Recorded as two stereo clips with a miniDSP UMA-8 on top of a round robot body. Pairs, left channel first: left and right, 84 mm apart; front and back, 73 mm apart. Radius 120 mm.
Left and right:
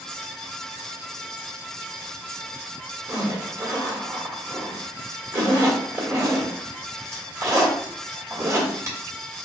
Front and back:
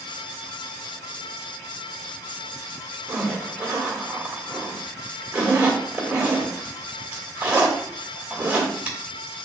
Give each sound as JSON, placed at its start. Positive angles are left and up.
{"t": 3.1, "sound": "a zipper", "azimuth_deg": -110, "distance_m": 1.7}